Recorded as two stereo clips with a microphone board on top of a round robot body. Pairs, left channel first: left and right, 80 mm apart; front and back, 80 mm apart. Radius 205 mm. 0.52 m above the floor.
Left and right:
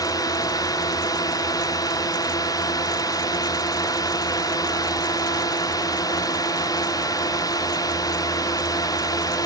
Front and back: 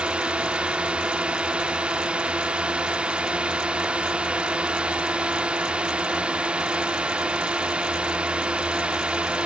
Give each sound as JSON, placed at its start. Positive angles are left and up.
{"t": 0.0, "sound": "a drone", "azimuth_deg": 105}